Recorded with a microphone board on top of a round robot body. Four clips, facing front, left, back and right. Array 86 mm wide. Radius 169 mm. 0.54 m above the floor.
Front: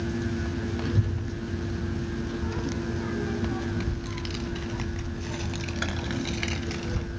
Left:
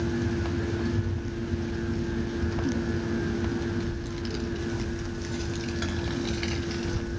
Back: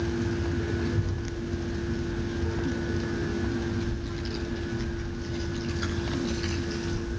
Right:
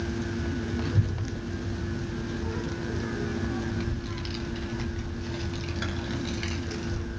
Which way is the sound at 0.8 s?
30° right.